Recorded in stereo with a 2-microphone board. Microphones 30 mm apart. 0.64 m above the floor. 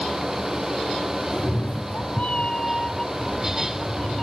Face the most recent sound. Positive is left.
turn(degrees=5)  # may be behind; listen again after turning